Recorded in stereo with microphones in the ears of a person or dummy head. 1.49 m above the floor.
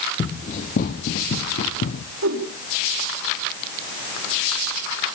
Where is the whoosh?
75° right (ahead or behind), 4 m.